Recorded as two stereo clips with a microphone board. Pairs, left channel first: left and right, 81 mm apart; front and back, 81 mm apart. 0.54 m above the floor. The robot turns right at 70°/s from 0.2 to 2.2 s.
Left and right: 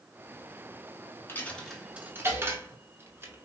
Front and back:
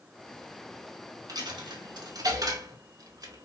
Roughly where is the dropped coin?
Behind left.